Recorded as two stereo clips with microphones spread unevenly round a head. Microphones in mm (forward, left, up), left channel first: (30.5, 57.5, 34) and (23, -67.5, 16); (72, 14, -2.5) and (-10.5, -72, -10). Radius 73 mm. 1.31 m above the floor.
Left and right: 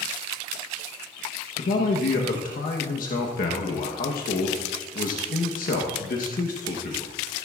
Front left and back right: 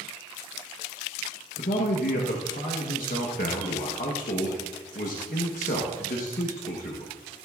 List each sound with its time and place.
1.6 s a man speaking: 75° left, 1.1 m